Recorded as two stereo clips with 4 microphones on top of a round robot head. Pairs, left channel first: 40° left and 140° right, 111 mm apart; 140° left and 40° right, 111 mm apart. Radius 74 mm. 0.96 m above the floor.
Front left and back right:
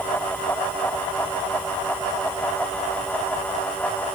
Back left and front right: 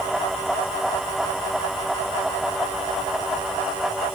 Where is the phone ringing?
I don't hear a phone ringing.